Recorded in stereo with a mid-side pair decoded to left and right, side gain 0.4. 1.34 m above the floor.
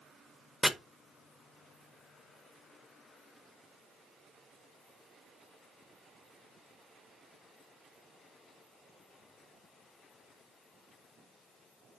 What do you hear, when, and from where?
0.6 s chopping: 10° right, 0.6 m